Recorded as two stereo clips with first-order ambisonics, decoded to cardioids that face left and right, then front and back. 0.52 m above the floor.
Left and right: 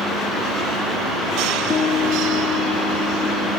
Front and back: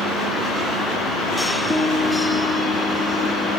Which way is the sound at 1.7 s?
90° left.